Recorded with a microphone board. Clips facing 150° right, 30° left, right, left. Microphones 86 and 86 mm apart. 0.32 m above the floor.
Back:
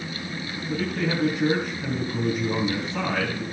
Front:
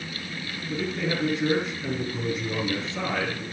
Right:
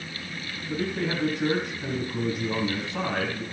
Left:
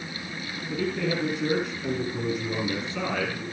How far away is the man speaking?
About 3.5 m.